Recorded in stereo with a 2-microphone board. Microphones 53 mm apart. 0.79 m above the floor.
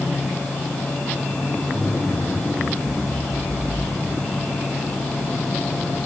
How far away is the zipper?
About 4 m.